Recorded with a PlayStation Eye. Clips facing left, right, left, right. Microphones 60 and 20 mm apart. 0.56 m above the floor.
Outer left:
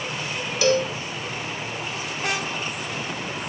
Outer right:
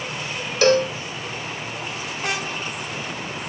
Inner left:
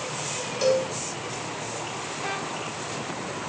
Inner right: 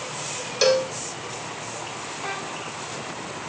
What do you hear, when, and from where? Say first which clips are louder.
0.6 s a cowbell: outer right 4 dB, inner right 3 dB; 60° right (ahead or behind), 0.6 m